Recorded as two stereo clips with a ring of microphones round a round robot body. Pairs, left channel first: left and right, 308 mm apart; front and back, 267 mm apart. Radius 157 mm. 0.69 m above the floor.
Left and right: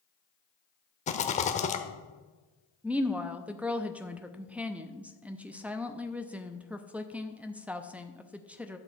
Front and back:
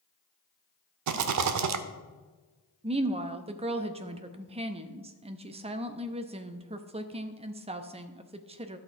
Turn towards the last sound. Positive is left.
turn(degrees=-170)